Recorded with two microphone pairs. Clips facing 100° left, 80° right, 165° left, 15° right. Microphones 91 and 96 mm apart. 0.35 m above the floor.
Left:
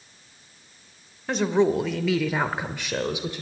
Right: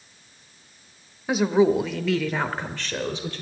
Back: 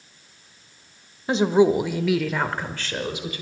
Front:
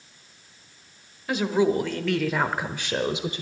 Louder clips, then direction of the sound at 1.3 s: Right 2 dB, back 5 dB; 155° right.